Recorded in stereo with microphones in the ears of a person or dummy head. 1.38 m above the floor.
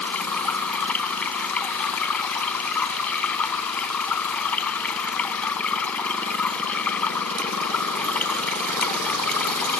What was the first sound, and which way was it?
Running water, 5° left (ahead or behind).